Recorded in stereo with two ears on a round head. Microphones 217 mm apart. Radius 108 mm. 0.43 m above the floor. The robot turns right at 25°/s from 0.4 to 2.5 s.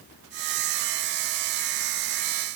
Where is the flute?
I don't hear a flute.